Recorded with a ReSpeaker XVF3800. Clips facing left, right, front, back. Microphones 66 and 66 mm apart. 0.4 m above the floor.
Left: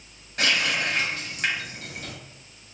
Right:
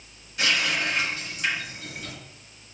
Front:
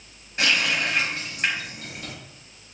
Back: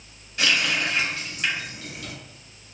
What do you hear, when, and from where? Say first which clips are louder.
0.4 s a running tap: left 1 dB, even; 55° left, 1.6 m